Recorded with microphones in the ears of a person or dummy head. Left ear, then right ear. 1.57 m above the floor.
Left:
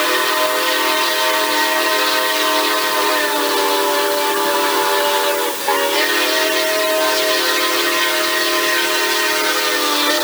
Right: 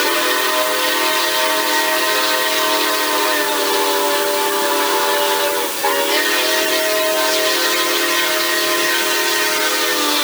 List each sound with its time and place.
Only background noise.